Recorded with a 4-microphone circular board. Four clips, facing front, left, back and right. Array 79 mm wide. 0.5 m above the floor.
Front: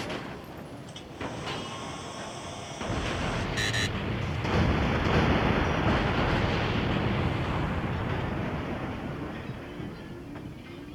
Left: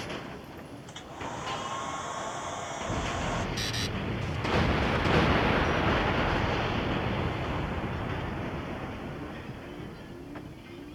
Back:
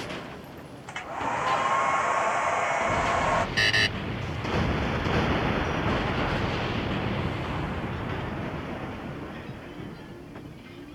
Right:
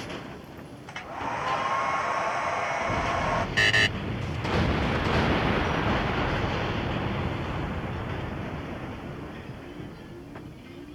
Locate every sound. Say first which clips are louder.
0.9 s a hair dryer: right 7 dB, back 10 dB; 155° right
3.6 s a buzzer: right 11 dB, back 5 dB; 110° right